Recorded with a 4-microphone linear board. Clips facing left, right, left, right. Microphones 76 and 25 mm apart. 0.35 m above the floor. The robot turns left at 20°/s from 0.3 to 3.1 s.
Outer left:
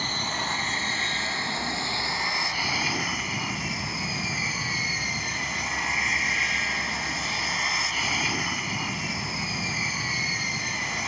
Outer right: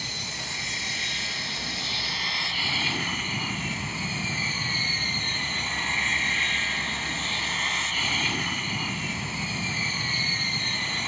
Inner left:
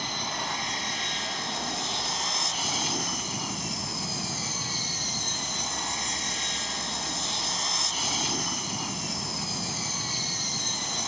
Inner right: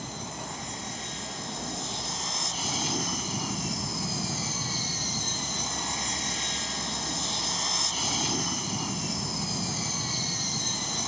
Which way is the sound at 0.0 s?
65° left.